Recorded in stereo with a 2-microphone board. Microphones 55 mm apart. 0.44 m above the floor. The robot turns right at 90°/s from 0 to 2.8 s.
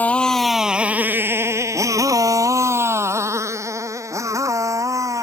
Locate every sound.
0.0 s a motorcycle: 30° left (ahead or behind); by 5.2 s 75° right (ahead or behind)